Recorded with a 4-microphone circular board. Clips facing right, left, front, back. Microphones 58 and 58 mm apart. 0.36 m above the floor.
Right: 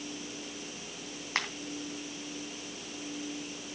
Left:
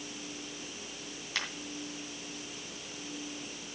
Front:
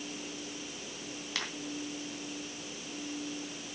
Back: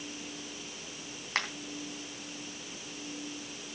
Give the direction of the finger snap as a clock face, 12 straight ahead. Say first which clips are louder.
Right 4 dB, back 6 dB; 5 o'clock.